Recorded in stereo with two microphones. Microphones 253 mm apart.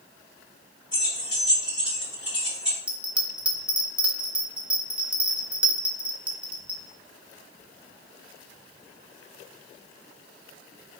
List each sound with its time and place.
0.9 s keys jangling: 70° left (ahead or behind), 3 m
2.9 s a bell: 5° right (ahead or behind), 1.1 m